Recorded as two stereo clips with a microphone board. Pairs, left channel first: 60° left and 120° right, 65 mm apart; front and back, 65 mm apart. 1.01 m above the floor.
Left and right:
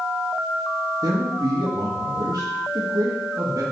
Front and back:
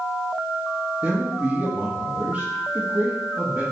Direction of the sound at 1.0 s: 110° right.